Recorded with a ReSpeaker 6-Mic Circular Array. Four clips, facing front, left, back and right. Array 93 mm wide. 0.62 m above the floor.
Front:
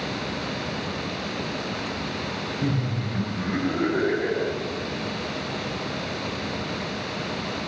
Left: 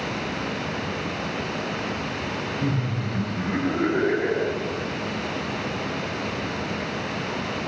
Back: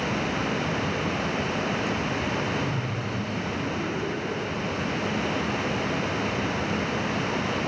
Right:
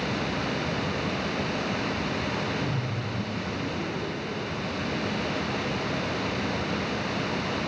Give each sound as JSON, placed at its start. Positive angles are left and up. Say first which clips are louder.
{"t": 2.6, "sound": "laughter", "louder": "left 4 dB, front 2 dB", "azimuth_deg": 50}